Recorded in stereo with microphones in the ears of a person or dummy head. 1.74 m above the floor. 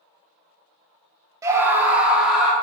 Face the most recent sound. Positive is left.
turn(degrees=-5)  # may be behind; listen again after turning